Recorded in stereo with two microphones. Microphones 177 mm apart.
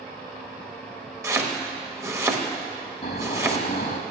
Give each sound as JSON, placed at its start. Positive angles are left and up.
{"t": 1.2, "sound": "chopping", "side_deg": -15, "distance_m": 1.2}
{"t": 3.0, "sound": "snoring", "side_deg": 55, "distance_m": 1.5}